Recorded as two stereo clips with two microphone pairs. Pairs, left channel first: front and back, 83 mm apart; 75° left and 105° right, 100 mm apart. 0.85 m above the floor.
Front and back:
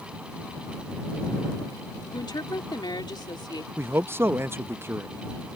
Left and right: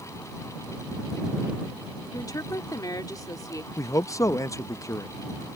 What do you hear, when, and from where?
2.1 s a woman speaking: 25° left
3.8 s a man speaking: 125° left